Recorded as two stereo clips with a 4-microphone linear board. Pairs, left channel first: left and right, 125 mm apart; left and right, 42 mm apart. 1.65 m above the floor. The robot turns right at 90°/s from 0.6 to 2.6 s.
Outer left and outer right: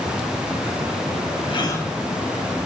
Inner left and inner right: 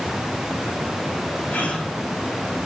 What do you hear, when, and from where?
1.5 s a gasp: 135° left, 2.5 m; by 1.9 s 170° left, 2.5 m